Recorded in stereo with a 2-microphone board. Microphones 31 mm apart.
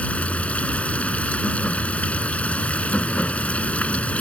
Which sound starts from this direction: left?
Running water, at 0.0 s.